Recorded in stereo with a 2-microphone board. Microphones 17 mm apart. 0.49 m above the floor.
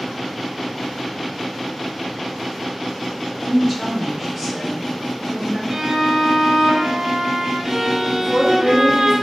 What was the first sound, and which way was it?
A woman speaking, 10° right (ahead or behind).